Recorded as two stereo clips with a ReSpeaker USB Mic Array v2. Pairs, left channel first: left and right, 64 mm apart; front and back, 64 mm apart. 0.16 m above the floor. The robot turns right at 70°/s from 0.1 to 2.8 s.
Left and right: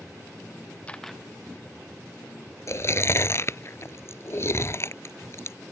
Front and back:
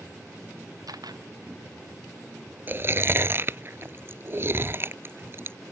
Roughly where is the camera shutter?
Behind.